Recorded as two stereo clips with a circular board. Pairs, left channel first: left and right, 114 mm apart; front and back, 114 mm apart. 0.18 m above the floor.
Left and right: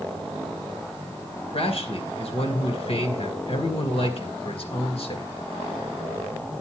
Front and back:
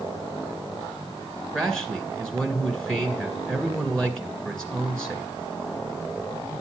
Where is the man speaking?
85° left, 2.0 m.